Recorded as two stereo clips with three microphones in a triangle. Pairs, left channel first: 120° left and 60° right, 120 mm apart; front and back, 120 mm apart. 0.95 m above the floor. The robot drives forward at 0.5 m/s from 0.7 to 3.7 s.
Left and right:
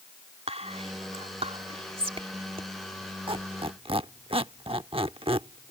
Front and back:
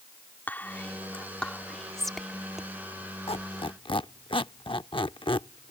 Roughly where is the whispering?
Right.